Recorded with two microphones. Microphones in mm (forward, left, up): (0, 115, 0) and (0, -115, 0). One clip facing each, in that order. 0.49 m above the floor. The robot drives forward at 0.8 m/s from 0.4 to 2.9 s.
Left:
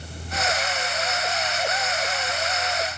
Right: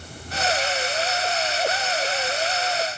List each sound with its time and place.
Only background noise.